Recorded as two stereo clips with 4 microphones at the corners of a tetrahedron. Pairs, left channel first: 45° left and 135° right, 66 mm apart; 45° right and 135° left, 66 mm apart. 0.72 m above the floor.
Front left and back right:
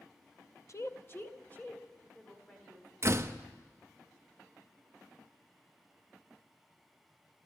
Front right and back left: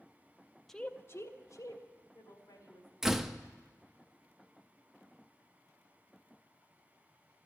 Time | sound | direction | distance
0.7 | a woman speaking | 40° left | 0.6 m
3.0 | a door slam | 145° right | 0.6 m